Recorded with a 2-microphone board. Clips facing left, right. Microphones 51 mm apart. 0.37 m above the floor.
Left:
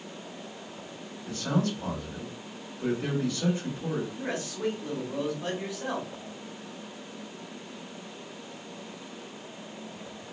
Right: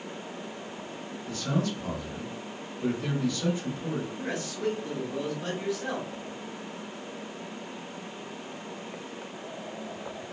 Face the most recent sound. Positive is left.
turn(degrees=10)  # may be behind; listen again after turning